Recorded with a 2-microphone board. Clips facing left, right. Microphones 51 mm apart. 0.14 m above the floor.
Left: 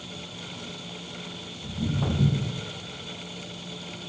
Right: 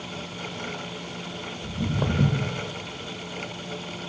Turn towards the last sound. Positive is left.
turn(degrees=-85)